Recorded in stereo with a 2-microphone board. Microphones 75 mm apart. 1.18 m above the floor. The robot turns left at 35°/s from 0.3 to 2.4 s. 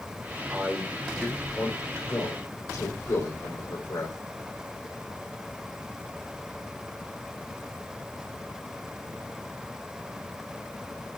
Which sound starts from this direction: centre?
A man speaking, at 0.5 s.